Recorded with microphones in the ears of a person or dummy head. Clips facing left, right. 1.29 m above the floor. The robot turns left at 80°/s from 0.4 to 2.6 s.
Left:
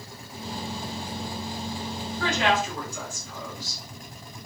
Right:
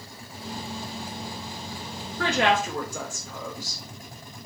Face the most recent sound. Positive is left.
turn(degrees=-120)